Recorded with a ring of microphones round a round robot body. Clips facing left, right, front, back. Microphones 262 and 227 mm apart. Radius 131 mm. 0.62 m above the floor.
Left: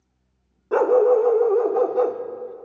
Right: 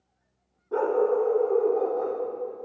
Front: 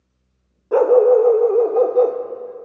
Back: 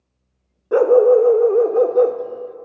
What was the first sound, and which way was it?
A dog barking, 100° left.